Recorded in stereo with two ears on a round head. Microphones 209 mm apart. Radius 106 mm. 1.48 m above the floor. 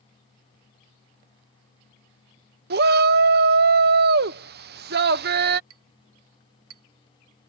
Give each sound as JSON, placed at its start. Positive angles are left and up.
{"t": 2.7, "sound": "a shout", "side_deg": -45}
{"t": 5.7, "sound": "a clink", "side_deg": -70}